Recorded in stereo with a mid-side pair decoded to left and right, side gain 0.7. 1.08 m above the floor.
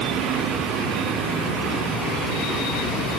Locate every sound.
Only background noise.